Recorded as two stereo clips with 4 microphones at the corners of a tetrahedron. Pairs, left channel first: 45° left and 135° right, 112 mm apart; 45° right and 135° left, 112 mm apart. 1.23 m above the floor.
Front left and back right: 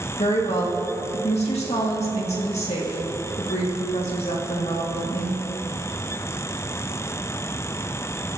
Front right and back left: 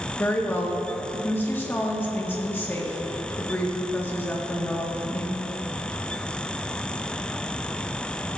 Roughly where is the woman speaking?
Ahead left.